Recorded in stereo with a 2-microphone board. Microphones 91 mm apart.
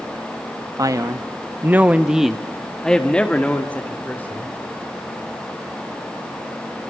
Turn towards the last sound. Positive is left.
turn(degrees=20)  # may be behind; listen again after turning